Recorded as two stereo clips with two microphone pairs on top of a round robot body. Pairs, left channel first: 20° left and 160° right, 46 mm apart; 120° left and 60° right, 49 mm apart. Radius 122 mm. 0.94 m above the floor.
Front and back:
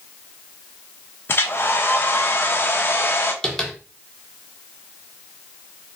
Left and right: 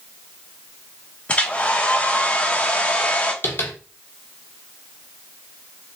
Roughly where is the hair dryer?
Ahead left.